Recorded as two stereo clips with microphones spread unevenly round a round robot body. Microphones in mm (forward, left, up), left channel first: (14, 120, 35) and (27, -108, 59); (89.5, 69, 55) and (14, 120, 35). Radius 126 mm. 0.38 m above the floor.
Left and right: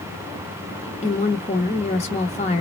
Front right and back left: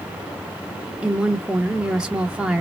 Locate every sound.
1.0 s a woman speaking: 90° left, 1.1 m